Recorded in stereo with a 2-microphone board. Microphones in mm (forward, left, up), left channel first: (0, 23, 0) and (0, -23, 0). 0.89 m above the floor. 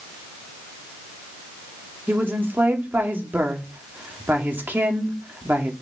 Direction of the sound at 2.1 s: 45° right (ahead or behind).